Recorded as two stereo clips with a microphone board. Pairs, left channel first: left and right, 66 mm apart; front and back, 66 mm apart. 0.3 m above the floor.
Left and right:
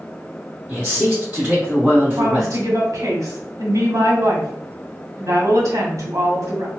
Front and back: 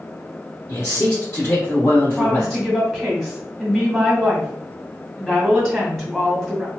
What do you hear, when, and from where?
0.7 s a man speaking: 35° right, 2.0 m
2.2 s a woman speaking: 85° right, 1.9 m